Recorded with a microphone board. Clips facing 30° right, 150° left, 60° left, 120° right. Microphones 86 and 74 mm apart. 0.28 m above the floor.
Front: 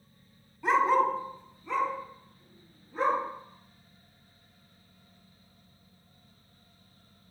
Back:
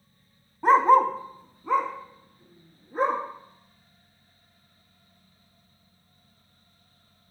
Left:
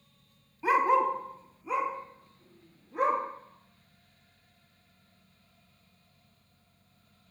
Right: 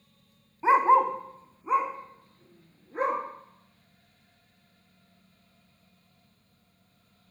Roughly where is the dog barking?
Behind.